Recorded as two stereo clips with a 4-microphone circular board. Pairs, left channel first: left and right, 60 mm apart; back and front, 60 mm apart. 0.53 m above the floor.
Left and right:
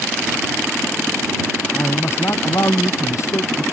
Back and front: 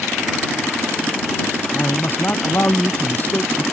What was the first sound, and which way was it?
A man speaking, 130° left.